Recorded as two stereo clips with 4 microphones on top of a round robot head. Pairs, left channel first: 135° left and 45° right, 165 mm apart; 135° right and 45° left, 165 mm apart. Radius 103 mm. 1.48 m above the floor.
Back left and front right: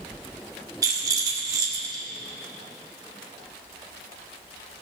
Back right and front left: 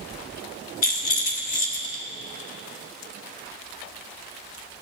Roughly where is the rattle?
Right.